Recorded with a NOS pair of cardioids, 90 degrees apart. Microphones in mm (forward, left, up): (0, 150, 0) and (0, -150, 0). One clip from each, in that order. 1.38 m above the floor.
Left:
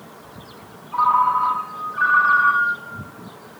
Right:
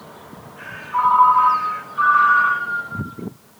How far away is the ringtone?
About 1.4 m.